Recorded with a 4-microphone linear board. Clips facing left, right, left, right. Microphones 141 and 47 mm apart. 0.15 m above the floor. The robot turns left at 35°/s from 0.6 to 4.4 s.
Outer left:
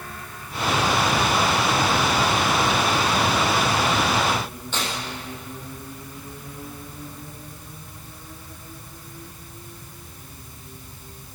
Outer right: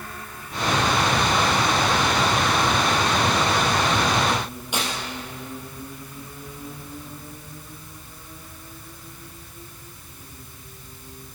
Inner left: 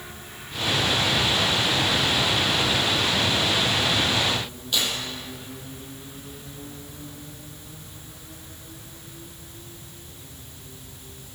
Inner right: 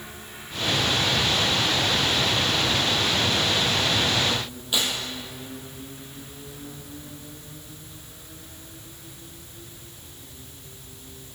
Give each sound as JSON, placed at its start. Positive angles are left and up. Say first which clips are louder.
{"t": 4.7, "sound": "tearing paper", "louder": "outer right 1 dB, even", "side_deg": -15, "distance_m": 3.0}